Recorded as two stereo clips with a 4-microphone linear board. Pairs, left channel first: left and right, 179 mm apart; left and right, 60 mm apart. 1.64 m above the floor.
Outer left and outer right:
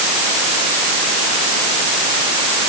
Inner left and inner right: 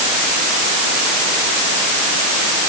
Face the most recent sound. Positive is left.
No sound to turn to.